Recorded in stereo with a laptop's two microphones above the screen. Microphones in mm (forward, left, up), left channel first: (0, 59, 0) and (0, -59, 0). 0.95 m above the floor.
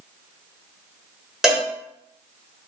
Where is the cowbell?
5° right (ahead or behind), 1.2 m.